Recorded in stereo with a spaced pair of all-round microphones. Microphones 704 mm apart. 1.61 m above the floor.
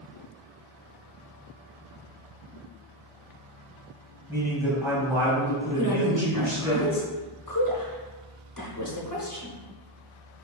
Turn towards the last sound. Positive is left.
turn(degrees=30)  # may be behind; listen again after turning